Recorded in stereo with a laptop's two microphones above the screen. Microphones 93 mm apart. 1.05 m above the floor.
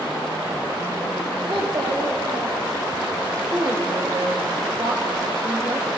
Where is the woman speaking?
40° right (ahead or behind), 1.2 m.